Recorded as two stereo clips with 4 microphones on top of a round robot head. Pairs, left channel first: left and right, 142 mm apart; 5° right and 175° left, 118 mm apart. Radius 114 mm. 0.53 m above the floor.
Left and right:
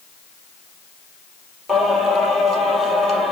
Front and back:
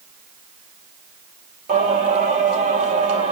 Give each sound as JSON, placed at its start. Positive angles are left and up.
{"t": 1.7, "sound": "singing", "azimuth_deg": 180, "distance_m": 4.0}